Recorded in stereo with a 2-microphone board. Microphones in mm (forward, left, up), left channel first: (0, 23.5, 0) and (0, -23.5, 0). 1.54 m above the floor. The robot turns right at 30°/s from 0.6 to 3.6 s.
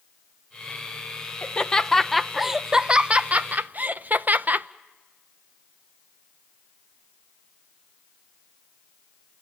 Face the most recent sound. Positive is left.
turn(degrees=-135)